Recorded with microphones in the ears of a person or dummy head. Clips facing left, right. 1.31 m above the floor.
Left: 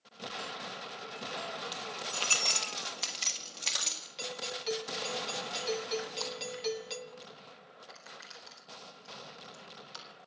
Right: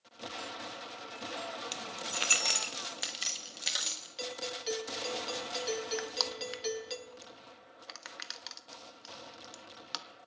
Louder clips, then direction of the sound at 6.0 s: Right 1 dB; 80° right.